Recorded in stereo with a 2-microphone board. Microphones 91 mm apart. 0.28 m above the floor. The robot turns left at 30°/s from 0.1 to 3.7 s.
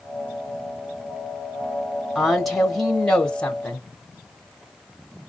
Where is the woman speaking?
5° right (ahead or behind), 0.9 m; by 3.9 s 15° left (ahead or behind), 0.9 m.